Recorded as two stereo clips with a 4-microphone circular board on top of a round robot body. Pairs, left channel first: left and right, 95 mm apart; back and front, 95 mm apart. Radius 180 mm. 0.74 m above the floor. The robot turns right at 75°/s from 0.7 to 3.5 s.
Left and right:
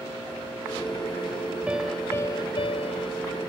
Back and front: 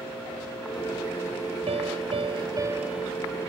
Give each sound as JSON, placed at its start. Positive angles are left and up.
{"t": 1.7, "sound": "a piano", "azimuth_deg": -15}